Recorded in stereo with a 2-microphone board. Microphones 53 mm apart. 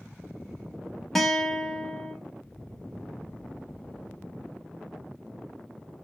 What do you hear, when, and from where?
1.1 s a guitar: 5° left (ahead or behind), 0.5 m